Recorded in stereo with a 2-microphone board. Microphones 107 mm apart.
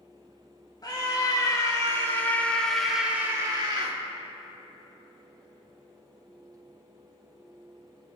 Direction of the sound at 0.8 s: 40° left (ahead or behind).